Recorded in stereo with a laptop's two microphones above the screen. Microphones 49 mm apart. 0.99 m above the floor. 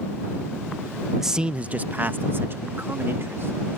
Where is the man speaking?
5° right (ahead or behind); by 3.8 s 55° right (ahead or behind).